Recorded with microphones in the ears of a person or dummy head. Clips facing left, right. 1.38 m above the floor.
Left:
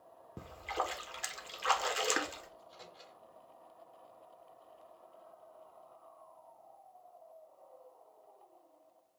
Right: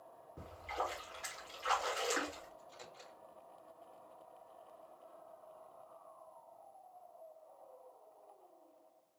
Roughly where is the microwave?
Centre.